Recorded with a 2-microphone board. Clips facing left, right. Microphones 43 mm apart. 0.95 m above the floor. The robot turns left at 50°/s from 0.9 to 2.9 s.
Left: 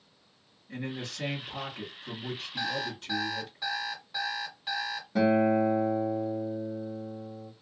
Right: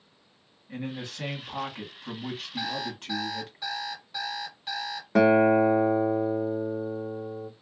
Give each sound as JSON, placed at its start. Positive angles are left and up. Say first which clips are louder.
{"t": 0.7, "sound": "a man speaking", "louder": "right 1 dB", "azimuth_deg": -20, "distance_m": 1.6}
{"t": 2.6, "sound": "an alarm clock", "louder": "left 1 dB", "side_deg": -10, "distance_m": 1.6}
{"t": 5.2, "sound": "a guitar", "louder": "right 5 dB", "side_deg": -65, "distance_m": 0.6}